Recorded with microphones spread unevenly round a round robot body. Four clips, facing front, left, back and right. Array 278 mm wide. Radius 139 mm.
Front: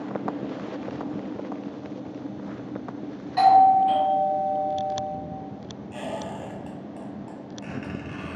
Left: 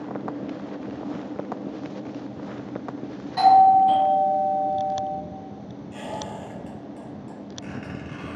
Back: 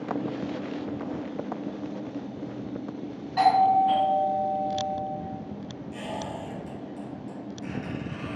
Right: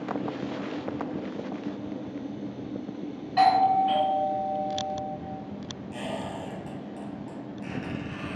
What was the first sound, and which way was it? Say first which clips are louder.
A doorbell: left 6 dB, front 4 dB; 45° right.